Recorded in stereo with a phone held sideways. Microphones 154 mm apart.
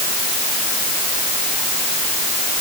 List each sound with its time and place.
Only background noise.